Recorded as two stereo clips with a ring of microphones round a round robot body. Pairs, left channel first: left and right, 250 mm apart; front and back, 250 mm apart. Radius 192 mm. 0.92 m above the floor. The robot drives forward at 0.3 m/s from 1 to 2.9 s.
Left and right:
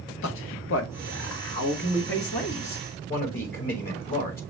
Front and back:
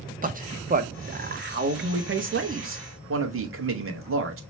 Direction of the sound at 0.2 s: 125° left.